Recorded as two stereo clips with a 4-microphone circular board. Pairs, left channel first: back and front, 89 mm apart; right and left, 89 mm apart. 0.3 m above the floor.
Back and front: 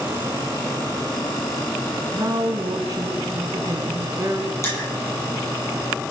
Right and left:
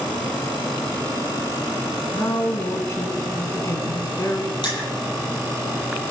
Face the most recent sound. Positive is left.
turn(degrees=-125)